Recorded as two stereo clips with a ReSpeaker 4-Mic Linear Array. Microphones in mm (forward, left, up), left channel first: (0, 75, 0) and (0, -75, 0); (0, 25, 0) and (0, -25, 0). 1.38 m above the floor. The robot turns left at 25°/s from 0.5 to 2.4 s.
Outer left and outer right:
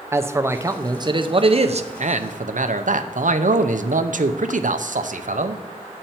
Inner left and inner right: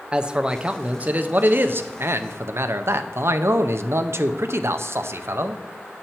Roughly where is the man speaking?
Ahead.